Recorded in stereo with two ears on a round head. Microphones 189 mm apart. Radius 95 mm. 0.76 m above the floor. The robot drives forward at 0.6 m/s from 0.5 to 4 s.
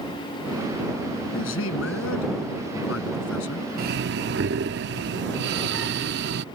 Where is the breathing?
45° right (ahead or behind); by 6.5 s 55° right (ahead or behind).